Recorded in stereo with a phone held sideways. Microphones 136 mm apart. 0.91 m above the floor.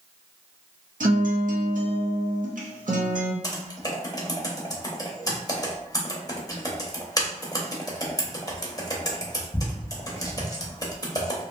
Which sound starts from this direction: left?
Typing on a keyboard, at 3.4 s.